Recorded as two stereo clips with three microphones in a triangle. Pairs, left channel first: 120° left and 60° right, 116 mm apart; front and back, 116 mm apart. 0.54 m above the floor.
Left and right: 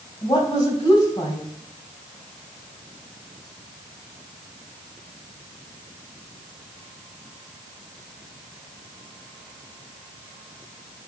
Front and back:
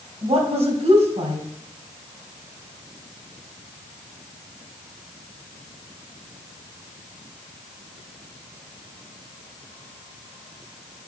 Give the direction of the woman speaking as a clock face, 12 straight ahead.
6 o'clock.